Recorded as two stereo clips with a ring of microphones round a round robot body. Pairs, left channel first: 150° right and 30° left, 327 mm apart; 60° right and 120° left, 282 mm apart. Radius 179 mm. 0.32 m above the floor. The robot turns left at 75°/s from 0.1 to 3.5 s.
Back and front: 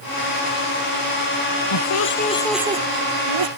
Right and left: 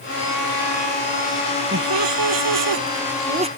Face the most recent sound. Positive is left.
turn(degrees=50)